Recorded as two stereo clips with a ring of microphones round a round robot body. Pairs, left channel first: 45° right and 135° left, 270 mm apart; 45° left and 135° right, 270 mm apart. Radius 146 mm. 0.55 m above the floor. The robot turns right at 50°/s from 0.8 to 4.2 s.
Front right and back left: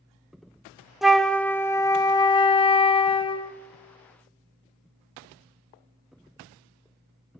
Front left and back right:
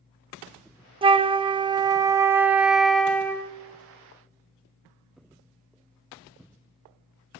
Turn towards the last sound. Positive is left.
turn(degrees=20)